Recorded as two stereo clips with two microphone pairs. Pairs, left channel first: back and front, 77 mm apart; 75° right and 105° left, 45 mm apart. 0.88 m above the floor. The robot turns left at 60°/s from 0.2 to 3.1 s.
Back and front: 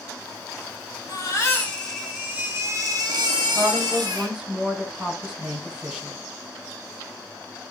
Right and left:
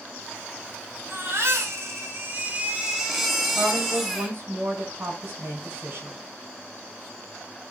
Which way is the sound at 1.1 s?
150° left.